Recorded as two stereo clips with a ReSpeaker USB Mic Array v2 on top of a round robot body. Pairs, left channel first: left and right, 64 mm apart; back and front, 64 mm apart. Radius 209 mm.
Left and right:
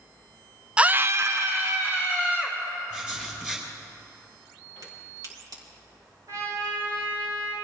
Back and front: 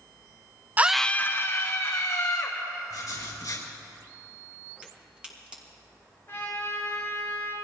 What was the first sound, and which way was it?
A scream, 30° right.